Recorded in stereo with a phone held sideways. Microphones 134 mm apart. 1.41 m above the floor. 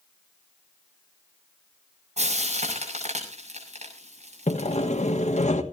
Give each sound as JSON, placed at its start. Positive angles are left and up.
{"t": 2.2, "sound": "frying", "side_deg": -55, "distance_m": 7.0}
{"t": 4.5, "sound": "sawing", "side_deg": 60, "distance_m": 1.6}